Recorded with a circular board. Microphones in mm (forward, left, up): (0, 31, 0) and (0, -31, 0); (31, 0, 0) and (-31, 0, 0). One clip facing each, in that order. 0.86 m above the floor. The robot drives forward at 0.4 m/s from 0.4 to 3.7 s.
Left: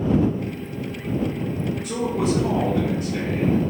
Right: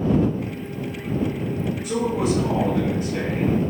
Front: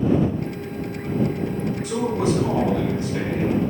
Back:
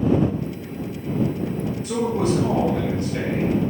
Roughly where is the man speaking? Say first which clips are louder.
Right 1 dB, back 1 dB; behind.